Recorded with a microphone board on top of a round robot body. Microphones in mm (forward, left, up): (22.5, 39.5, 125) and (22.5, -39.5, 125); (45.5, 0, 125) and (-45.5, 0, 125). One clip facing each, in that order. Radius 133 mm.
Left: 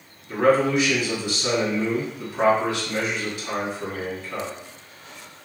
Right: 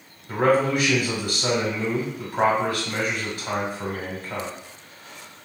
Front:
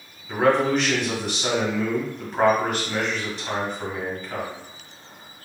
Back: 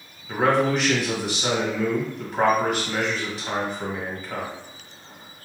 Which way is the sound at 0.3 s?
95° right.